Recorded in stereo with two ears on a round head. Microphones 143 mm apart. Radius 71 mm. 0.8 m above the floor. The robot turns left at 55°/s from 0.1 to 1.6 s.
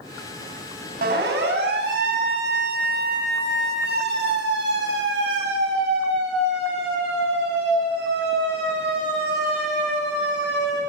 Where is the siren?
65° right (ahead or behind), 9 m; by 10.8 s 85° right, 14 m.